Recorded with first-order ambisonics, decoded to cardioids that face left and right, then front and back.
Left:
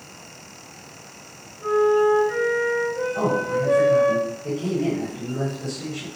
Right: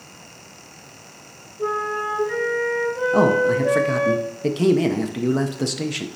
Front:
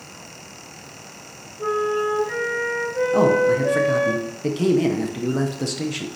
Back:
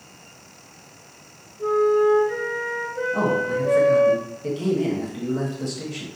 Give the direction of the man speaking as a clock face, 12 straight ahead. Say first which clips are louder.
Right 8 dB, front 6 dB; 2 o'clock.